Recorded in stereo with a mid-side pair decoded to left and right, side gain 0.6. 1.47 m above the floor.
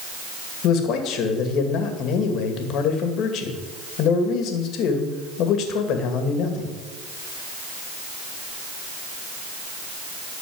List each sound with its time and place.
0.6 s a man speaking: 65° left, 2 m